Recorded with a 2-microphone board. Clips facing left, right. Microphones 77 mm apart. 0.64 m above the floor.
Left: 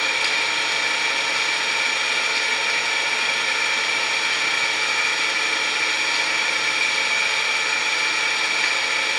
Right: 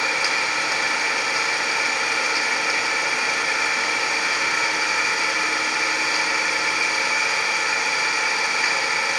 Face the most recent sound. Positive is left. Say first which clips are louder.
# right 1 dB
turn(degrees=-15)  # may be behind; listen again after turning